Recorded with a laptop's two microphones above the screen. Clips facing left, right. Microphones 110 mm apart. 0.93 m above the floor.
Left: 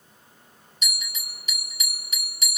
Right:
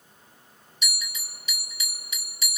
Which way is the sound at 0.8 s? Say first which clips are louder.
Even; 50° left (ahead or behind).